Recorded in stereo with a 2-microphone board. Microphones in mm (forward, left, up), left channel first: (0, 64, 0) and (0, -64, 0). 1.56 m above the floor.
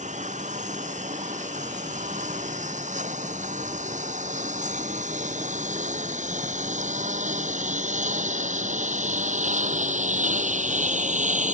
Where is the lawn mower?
70° right (ahead or behind); by 11.6 s 75° right (ahead or behind).